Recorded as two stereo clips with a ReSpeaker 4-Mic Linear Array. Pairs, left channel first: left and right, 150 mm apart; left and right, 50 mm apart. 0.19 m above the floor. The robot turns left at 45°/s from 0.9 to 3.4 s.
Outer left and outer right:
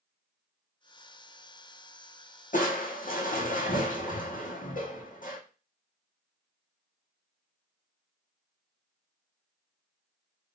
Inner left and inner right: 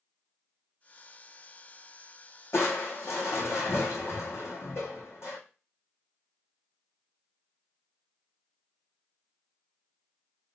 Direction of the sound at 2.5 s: 110° left.